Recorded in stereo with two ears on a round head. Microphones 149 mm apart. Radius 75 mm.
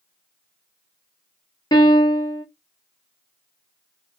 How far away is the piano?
About 0.9 m.